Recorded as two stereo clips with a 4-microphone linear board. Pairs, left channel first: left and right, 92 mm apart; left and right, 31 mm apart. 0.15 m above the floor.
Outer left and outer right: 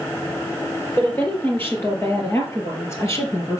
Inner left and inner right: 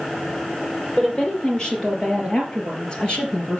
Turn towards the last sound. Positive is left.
turn(degrees=35)  # may be behind; listen again after turning